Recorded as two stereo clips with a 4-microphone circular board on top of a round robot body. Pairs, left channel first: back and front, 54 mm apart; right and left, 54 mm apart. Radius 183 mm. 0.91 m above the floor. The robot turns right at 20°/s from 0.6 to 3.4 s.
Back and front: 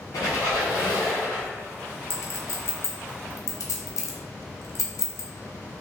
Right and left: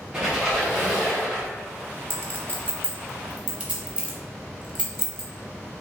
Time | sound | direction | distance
0.1 | a squeak | 175° left | 0.6 m
2.1 | a clink | 135° left | 0.7 m